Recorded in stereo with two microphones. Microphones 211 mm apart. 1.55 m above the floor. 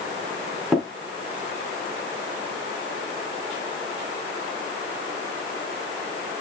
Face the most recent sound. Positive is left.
turn(degrees=0)  # may be behind; listen again after turning